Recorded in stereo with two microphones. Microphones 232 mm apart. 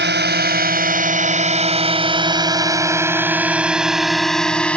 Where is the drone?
50° right (ahead or behind); by 4.8 s 5° left (ahead or behind).